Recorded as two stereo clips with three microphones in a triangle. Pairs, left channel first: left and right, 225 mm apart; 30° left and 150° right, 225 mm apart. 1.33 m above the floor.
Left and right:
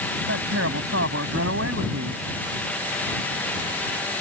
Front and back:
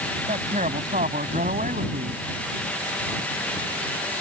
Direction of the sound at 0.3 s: 95° right.